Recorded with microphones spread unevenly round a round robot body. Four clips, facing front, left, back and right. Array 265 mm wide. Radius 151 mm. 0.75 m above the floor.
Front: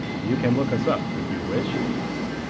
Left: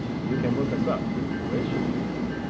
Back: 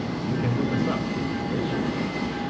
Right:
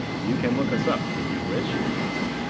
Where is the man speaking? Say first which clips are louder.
Right 2 dB, front 5 dB; 30° right, 1.0 m.